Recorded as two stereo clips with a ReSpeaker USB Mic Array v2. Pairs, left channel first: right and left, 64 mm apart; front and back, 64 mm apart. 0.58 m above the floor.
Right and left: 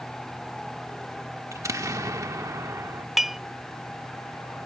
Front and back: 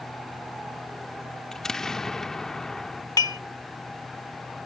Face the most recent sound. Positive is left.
turn(degrees=5)